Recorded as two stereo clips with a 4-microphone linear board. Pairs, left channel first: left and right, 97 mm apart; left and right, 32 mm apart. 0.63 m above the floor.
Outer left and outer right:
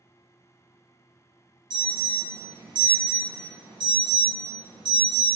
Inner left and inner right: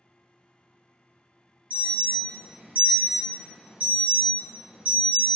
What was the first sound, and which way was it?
An alarm, 50° right (ahead or behind).